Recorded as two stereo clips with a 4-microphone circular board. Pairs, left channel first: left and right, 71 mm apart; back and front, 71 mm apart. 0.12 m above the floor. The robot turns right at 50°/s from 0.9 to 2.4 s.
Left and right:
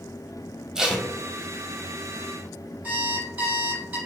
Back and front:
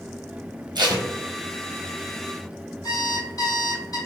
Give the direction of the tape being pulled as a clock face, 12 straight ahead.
12 o'clock.